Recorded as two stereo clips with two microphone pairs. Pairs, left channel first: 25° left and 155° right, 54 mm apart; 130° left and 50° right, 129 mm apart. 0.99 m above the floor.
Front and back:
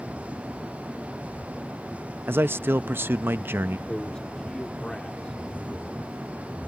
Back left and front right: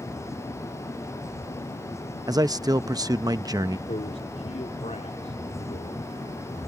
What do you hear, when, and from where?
2.3 s a man speaking: 105° right
3.9 s a man speaking: 105° left